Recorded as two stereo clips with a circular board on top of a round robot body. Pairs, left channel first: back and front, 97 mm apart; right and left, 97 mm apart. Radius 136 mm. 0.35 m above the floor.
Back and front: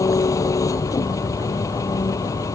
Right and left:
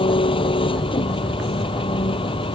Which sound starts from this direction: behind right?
An engine running, at 0.0 s.